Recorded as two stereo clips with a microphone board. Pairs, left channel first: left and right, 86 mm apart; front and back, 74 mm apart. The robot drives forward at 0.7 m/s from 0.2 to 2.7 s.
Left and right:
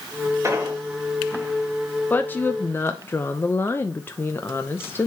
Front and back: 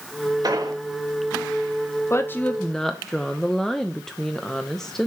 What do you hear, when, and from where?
0.4 s an explosion: 145° right, 1.5 m; by 0.8 s 150° right, 1.7 m
2.1 s a woman speaking: 30° left, 0.8 m; by 5.1 s 75° left, 0.7 m